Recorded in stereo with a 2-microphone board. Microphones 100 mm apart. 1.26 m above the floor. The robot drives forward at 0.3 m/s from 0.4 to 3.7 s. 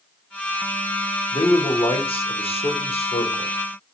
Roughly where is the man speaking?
Left.